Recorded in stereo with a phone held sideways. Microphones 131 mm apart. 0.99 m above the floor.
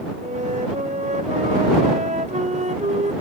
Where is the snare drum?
No snare drum in this recording.